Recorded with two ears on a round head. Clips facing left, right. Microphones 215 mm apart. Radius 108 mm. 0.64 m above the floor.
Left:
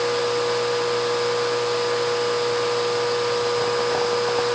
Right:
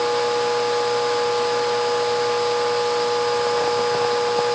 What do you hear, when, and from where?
Only background noise.